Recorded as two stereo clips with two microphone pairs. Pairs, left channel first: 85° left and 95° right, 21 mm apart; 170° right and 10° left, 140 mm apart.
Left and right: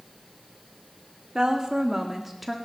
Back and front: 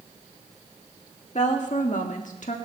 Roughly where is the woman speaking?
Behind right.